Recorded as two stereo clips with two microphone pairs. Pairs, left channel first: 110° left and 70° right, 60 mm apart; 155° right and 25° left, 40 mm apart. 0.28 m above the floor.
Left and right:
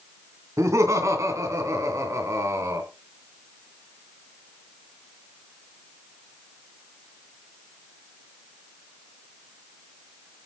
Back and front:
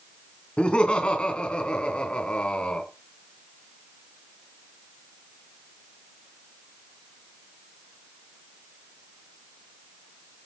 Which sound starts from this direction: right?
Laughter, at 0.6 s.